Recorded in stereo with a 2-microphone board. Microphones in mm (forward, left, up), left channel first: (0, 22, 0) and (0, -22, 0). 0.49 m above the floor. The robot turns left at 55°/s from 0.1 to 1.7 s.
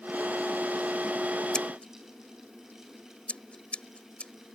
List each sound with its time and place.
1.5 s scissors: 20° left (ahead or behind); by 4.3 s 25° left (ahead or behind)